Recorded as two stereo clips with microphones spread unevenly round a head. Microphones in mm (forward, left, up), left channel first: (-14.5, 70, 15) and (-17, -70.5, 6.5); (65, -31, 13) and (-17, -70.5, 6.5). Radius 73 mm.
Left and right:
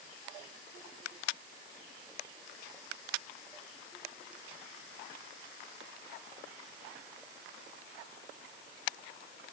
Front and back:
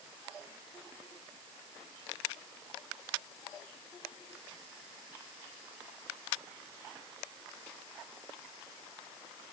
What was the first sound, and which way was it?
Only background noise.